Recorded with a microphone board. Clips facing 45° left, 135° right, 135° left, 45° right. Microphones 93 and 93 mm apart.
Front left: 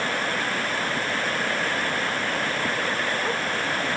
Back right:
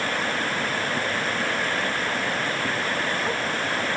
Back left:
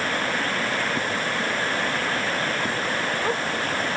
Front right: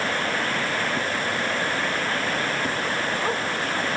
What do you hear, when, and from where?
Only background noise.